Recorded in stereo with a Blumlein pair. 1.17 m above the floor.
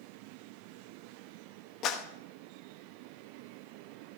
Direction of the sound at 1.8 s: 35° left.